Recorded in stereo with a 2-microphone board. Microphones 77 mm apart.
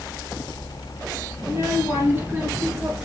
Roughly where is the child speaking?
Right.